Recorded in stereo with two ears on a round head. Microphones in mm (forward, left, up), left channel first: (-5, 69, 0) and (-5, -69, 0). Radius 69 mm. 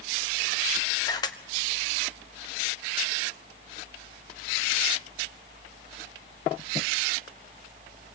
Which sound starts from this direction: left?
A camera shutter, at 1.1 s.